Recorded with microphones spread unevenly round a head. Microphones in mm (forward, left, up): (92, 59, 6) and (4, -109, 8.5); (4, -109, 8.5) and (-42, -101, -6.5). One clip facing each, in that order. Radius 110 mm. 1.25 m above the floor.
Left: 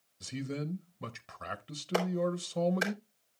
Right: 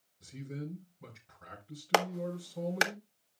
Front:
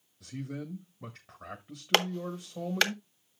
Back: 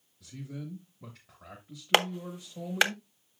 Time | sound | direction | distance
0.2 | a man speaking | 70° left | 1.0 m
1.9 | a clap | 110° right | 1.6 m